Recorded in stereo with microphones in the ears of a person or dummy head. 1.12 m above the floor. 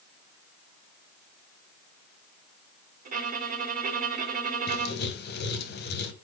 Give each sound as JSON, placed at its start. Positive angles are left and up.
{"t": 3.0, "sound": "a violin", "side_deg": -45, "distance_m": 1.2}
{"t": 4.7, "sound": "writing", "side_deg": 50, "distance_m": 1.0}